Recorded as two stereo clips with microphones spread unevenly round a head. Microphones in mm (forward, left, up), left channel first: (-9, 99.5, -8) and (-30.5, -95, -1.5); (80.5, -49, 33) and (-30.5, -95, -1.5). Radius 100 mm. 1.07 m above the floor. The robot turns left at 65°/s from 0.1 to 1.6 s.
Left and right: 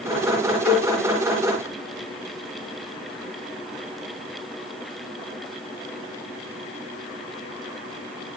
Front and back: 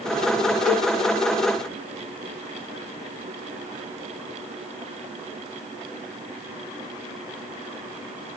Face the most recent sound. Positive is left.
turn(degrees=-25)